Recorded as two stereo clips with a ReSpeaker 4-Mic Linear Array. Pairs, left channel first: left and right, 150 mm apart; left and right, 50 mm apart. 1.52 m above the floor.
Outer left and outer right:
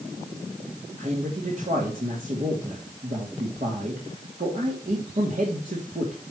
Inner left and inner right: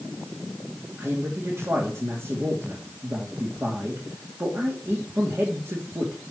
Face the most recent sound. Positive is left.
turn(degrees=-70)  # may be behind; listen again after turning